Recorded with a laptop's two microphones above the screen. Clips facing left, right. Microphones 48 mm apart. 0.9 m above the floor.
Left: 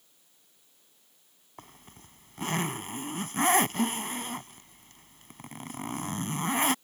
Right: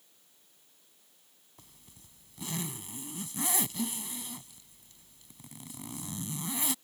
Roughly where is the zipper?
Left.